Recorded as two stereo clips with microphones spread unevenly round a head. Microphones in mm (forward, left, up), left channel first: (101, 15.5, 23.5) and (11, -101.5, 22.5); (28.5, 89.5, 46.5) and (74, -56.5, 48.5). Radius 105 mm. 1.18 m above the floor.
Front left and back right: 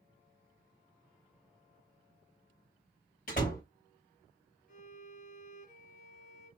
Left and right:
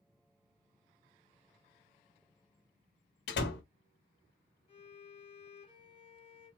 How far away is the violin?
About 1.0 m.